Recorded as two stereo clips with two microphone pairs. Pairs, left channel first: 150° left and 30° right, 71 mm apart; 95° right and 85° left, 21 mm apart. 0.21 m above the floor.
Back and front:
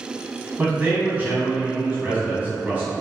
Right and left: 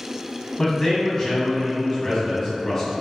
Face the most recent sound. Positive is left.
turn(degrees=-65)